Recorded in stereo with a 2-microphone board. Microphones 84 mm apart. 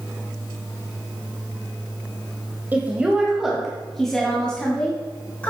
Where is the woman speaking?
20° right (ahead or behind), 1.2 m; by 5.5 s 15° left (ahead or behind), 2.5 m.